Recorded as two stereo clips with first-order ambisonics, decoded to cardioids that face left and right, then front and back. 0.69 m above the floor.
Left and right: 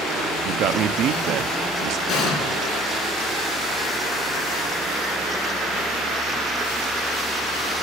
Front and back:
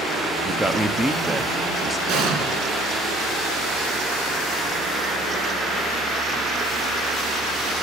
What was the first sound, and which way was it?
A man speaking, 100° right.